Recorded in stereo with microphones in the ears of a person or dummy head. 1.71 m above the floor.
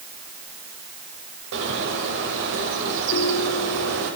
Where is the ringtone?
65° left (ahead or behind), 4 m.